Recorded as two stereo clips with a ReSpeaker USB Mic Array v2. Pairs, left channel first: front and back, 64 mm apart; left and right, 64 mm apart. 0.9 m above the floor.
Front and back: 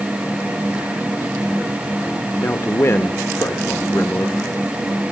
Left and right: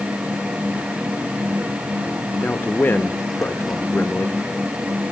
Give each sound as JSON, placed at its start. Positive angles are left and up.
{"t": 2.3, "sound": "a man speaking", "azimuth_deg": 35, "distance_m": 1.0}